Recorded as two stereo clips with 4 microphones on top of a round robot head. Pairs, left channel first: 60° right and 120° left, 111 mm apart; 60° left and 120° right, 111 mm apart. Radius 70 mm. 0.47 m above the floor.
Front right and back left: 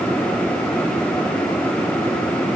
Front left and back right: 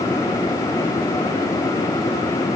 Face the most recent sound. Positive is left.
No sound to turn to.